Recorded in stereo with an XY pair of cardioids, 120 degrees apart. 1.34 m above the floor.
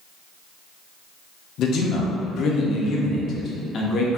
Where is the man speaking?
60° left, 0.6 m.